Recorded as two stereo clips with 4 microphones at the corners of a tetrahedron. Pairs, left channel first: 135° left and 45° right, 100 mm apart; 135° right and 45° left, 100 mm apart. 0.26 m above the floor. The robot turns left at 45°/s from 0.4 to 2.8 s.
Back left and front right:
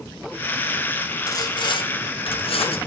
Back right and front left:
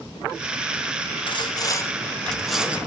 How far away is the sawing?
About 0.7 m.